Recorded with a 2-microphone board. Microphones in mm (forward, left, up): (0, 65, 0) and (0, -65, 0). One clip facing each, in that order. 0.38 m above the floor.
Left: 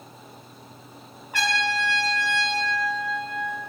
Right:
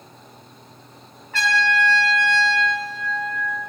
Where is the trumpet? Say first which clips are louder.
Right 4 dB; 15° left (ahead or behind), 0.7 m.